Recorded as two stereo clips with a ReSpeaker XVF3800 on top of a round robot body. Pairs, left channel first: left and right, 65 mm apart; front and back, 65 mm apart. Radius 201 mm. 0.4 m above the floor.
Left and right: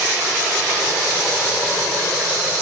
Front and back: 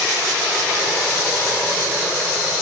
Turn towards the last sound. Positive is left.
No sound to turn to.